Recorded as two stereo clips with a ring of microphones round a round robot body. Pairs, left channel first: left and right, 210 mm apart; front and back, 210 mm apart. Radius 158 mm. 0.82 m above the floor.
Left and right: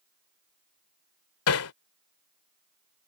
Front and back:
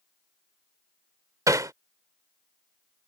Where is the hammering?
105° left.